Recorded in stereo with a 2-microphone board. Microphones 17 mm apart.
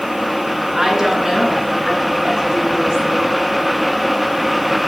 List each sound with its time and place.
0.7 s a woman speaking: 40° right (ahead or behind), 4 m